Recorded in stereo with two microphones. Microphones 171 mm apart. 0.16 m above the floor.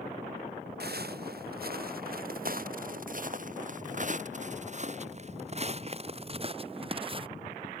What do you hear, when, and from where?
0.8 s footsteps: 70° right (ahead or behind); by 7.3 s 30° right (ahead or behind)